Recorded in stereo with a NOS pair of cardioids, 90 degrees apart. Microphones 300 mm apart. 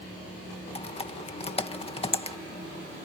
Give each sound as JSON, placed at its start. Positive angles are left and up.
{"t": 0.8, "sound": "typing on a keyboard", "azimuth_deg": 20}